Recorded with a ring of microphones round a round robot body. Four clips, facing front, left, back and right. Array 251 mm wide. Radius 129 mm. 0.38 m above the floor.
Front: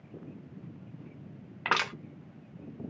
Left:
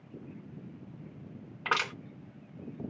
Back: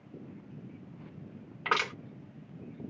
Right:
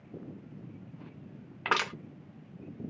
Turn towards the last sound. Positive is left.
turn(degrees=-35)